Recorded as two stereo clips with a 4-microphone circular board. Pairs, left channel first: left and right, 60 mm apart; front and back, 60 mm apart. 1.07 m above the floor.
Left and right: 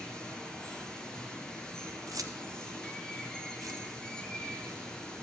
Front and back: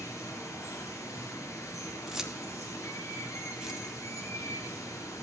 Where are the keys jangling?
100° right, 0.7 m.